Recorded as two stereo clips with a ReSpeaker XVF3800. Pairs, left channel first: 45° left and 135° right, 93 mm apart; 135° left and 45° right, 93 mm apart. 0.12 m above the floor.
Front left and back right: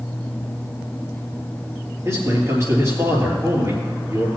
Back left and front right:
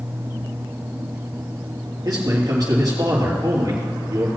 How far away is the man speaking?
About 3.5 m.